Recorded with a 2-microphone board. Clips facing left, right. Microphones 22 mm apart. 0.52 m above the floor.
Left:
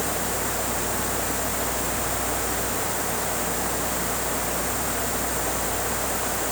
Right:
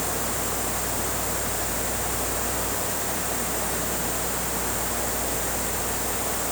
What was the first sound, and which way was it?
Only background noise.